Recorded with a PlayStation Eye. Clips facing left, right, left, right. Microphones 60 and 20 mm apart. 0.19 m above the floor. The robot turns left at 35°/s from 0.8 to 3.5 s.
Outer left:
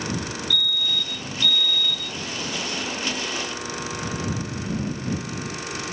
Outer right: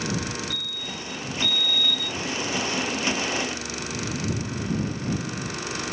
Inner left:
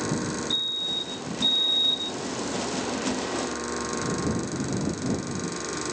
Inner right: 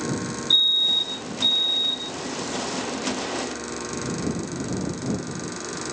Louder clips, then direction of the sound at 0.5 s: Outer left 7 dB, inner right 11 dB; 145° right.